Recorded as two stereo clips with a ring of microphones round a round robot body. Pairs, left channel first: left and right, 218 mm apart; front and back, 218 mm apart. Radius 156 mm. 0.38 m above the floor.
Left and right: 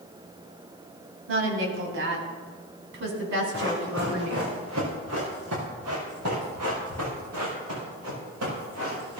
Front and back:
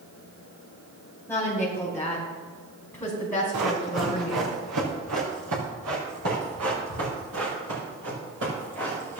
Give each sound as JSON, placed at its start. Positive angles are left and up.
{"t": 1.3, "sound": "a woman speaking", "azimuth_deg": -80, "distance_m": 3.0}
{"t": 3.5, "sound": "running footsteps", "azimuth_deg": -150, "distance_m": 3.0}